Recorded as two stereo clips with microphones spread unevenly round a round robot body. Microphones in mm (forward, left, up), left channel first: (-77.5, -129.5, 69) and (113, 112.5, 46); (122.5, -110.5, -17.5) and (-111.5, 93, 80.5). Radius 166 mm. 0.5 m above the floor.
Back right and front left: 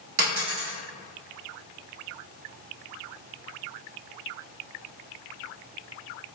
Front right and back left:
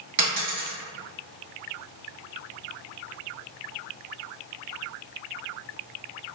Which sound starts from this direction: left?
A dropped coin, at 0.2 s.